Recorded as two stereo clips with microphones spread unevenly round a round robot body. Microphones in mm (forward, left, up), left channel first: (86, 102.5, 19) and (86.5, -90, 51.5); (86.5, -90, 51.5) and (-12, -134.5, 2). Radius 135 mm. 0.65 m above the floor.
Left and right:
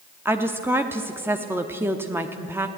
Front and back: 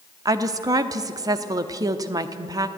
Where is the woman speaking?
175° right, 0.8 m.